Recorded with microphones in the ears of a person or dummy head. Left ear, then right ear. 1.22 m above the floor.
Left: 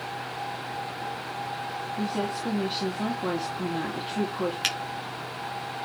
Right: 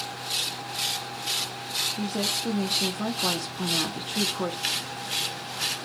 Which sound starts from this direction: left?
A finger snap, at 4.6 s.